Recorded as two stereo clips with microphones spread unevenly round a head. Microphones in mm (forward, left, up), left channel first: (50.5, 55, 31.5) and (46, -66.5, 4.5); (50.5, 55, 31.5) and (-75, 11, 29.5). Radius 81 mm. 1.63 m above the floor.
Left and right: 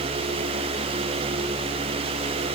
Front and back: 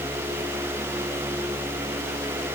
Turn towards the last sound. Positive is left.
No sound to turn to.